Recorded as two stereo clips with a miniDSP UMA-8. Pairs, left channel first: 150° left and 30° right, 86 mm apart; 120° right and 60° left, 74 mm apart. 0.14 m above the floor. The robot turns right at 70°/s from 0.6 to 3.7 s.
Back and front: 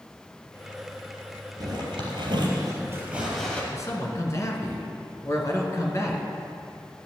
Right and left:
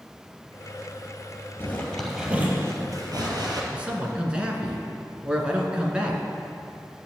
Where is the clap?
I don't hear a clap.